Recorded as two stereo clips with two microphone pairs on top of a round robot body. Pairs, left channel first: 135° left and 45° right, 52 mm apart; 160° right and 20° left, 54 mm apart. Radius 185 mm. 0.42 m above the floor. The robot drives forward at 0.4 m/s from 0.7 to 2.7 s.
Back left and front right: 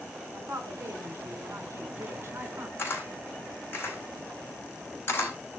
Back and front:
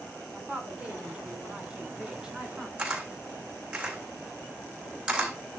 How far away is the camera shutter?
About 4.5 m.